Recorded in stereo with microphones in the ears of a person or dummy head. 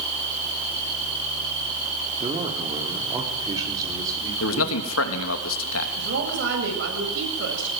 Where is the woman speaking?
80° right, 7.5 m.